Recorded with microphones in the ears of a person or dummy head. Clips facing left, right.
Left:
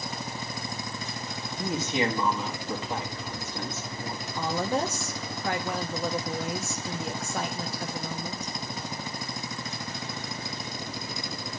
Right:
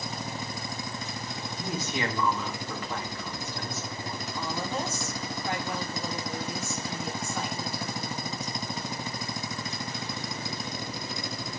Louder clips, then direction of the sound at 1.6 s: Left 5 dB; 20° left (ahead or behind).